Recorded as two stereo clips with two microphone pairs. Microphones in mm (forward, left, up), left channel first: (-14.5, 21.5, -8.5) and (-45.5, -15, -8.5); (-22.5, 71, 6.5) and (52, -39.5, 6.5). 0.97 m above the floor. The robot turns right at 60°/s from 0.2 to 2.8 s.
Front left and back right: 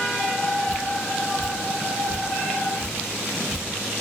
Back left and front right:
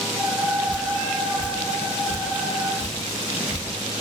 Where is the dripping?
145° left, 1.1 m; by 3.6 s 85° right, 1.1 m.